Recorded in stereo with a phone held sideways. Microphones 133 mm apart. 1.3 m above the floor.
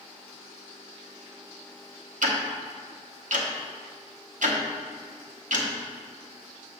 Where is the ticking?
80° right, 1.0 m.